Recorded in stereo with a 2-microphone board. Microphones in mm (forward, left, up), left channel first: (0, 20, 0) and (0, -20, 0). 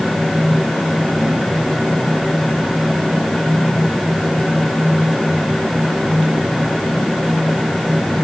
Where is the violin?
No violin in this recording.